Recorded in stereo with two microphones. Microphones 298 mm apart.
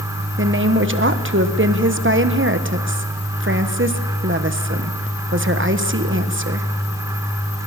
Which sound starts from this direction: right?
A woman speaking, at 0.4 s.